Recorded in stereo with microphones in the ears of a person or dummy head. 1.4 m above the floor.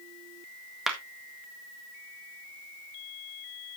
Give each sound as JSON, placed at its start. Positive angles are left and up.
{"t": 0.9, "sound": "a clap", "side_deg": -5, "distance_m": 1.4}